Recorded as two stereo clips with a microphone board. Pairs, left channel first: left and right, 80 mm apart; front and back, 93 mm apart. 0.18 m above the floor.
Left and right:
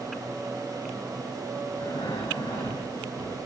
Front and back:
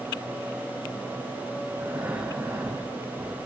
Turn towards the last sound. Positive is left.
turn(degrees=115)